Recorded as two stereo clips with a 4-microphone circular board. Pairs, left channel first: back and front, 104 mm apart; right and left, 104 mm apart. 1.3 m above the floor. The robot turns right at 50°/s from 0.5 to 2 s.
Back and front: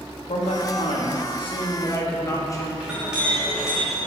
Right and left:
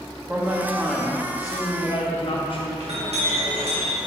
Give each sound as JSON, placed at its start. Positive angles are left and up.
{"t": 0.3, "sound": "a man speaking", "azimuth_deg": 165, "distance_m": 1.2}
{"t": 2.8, "sound": "a clink", "azimuth_deg": 80, "distance_m": 1.7}